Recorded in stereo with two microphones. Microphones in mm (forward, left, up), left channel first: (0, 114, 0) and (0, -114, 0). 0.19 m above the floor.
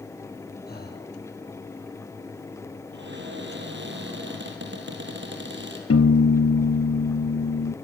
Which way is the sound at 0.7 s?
40° left (ahead or behind).